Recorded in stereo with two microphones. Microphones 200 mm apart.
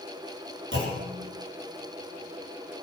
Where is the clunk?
75° right (ahead or behind), 4.5 m.